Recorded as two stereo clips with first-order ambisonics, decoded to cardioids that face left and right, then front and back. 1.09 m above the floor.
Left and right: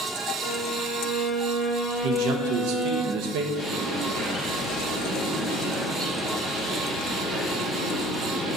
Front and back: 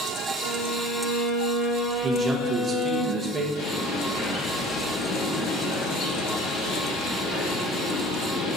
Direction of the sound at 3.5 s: Straight ahead.